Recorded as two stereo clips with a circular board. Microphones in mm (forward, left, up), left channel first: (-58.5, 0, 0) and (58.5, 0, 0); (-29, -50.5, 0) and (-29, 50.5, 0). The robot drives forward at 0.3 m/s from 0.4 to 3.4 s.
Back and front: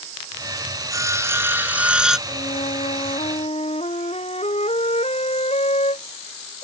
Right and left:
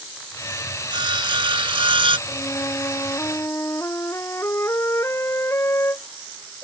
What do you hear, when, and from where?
0.9 s sawing: 60° left; by 2.2 s 85° left
2.3 s a flute: 155° right